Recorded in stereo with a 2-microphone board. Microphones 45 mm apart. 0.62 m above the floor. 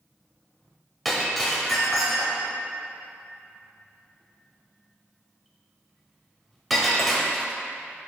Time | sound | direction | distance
1.1 | breaking glass | centre (ahead or behind) | 1.0 m